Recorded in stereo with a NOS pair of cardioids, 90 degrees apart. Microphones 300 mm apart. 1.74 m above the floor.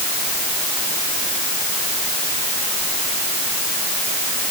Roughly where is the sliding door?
No sliding door in this recording.